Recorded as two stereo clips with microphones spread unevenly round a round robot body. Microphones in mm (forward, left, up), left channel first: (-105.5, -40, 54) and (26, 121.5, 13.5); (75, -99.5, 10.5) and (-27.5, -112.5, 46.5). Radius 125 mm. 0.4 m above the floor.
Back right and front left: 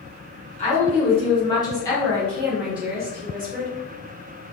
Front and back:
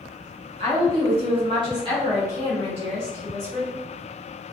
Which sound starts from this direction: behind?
A woman speaking, at 0.6 s.